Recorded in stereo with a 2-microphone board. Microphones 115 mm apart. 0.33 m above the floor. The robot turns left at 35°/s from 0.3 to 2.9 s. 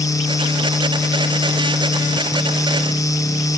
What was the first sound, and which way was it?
Only background noise.